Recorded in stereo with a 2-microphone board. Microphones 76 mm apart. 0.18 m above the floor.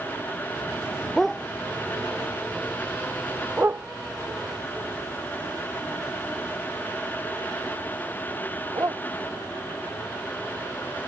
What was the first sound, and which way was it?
A dog barking, 5° left (ahead or behind).